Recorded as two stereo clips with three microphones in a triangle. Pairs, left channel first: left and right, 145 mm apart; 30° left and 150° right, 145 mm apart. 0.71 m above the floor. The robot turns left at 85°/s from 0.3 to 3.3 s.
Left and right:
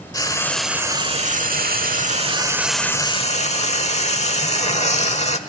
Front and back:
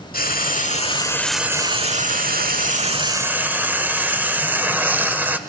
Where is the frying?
30° left, 1.3 m; by 5.4 s 135° left, 1.3 m.